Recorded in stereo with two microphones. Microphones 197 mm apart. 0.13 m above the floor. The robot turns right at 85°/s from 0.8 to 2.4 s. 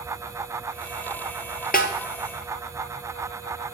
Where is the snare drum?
50° left (ahead or behind), 1.0 m; by 1.9 s 60° left (ahead or behind), 1.0 m.